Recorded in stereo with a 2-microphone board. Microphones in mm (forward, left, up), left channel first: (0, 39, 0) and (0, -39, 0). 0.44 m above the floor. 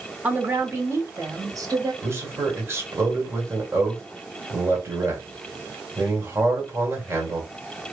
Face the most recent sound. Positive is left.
turn(degrees=-35)  # may be behind; listen again after turning